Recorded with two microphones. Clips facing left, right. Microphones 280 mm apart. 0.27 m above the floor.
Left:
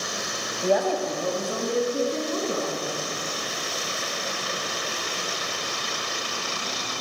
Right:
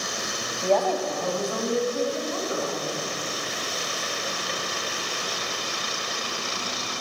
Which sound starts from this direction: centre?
A woman speaking, at 0.6 s.